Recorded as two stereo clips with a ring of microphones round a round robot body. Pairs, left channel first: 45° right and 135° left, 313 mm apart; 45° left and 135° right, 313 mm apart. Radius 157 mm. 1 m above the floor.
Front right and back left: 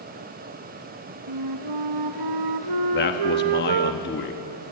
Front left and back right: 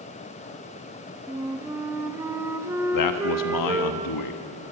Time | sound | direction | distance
1.3 | a flute | 145° left | 1.3 m
2.9 | a man speaking | 15° left | 1.3 m